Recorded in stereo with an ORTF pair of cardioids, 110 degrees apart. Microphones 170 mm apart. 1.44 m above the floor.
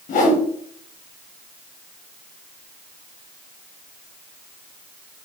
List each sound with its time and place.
0.1 s a whoosh: 50° left, 1.1 m